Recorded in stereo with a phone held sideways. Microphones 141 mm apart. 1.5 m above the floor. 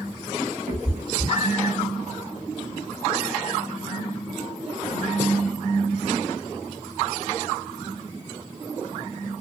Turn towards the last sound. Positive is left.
turn(degrees=-50)  # may be behind; listen again after turning